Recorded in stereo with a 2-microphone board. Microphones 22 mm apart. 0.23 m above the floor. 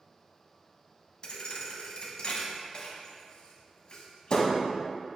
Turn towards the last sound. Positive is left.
turn(degrees=45)  # may be behind; listen again after turning